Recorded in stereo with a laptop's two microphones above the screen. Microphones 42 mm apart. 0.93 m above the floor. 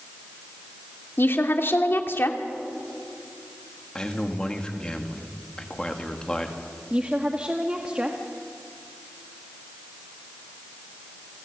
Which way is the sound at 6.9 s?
25° right (ahead or behind).